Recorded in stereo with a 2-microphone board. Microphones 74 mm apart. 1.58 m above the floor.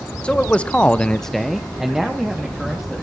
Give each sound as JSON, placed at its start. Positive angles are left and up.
{"t": 0.2, "sound": "a man speaking", "side_deg": 15, "distance_m": 1.2}